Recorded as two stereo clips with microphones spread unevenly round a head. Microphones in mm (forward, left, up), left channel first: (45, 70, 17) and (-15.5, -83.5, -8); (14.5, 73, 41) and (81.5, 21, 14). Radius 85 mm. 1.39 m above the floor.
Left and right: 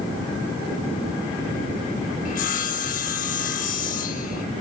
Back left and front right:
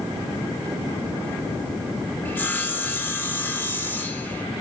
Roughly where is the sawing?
Left.